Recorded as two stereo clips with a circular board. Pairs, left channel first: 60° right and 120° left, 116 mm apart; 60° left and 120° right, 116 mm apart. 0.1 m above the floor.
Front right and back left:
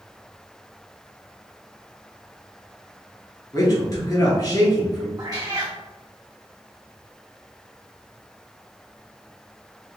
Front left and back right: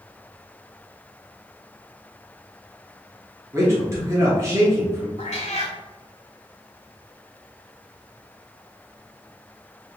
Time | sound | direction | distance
3.5 | a man speaking | 80° right | 1.4 m
5.2 | a cat meowing | 65° left | 1.0 m